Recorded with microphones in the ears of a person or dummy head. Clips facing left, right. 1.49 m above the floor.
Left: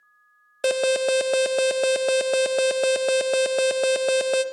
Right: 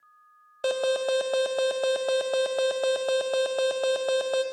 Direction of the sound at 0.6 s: 30° left (ahead or behind).